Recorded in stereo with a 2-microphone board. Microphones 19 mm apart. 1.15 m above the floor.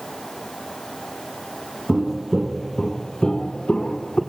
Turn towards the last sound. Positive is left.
turn(degrees=65)  # may be behind; listen again after turning